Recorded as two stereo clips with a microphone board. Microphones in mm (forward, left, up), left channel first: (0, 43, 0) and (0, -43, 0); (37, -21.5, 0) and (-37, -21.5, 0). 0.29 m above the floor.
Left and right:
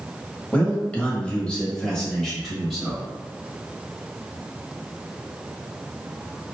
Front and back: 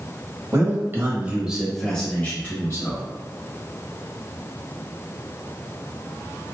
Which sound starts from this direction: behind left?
A man speaking, at 0.5 s.